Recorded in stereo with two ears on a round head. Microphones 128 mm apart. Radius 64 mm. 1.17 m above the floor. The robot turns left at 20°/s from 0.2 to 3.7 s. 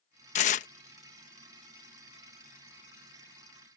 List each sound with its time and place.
0.3 s tearing paper: 55° left (ahead or behind); by 0.7 s 65° left (ahead or behind)